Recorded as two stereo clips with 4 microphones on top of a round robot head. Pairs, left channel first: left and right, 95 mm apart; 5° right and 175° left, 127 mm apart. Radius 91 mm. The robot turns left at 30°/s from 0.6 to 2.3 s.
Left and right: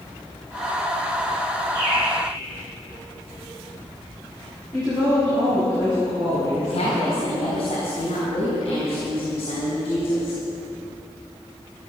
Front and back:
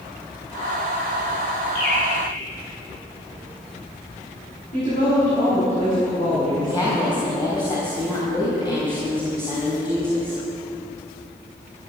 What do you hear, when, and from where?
1.8 s a bird: 20° right, 4 m; by 2.1 s 30° right, 4 m
4.7 s a woman speaking: 35° right, 6 m
6.6 s a woman speaking: 50° left, 4 m